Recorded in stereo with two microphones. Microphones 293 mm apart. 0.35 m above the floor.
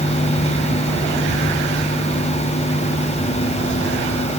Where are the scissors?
No scissors in this recording.